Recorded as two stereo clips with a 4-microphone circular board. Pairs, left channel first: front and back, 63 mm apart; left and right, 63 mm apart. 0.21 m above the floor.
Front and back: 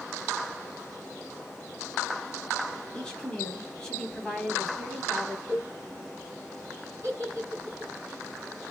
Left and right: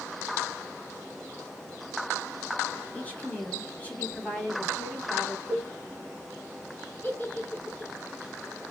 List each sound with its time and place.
2.9 s a woman speaking: 65° left, 1.3 m
5.5 s a cowbell: 20° right, 1.8 m
7.0 s a giggle: 140° left, 2.5 m